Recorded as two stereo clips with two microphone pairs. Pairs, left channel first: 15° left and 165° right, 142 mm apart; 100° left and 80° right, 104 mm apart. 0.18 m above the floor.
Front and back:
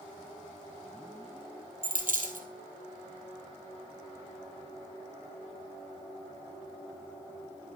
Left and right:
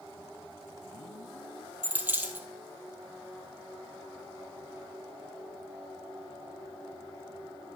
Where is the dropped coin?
150° right, 1.4 m.